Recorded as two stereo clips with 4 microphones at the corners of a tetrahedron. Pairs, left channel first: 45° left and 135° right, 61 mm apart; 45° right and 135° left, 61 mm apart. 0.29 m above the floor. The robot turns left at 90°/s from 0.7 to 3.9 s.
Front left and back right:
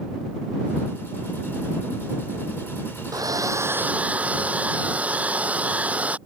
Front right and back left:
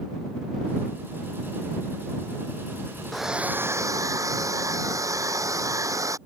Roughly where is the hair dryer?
Behind right.